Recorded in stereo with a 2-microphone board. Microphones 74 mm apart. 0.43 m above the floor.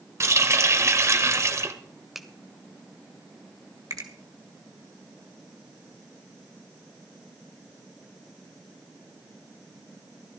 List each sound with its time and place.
0.2 s a running tap: 40° right (ahead or behind), 1.2 m
2.1 s a finger snap: 5° right (ahead or behind), 1.4 m
3.9 s a finger snap: 55° right (ahead or behind), 2 m